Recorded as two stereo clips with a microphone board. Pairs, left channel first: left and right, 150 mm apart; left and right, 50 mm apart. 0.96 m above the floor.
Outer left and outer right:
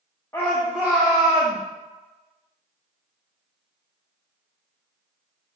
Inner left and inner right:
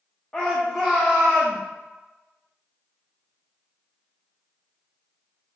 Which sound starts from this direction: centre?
A shout, at 0.3 s.